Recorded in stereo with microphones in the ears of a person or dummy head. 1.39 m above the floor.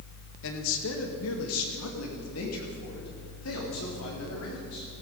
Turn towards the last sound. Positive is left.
turn(degrees=75)  # may be behind; listen again after turning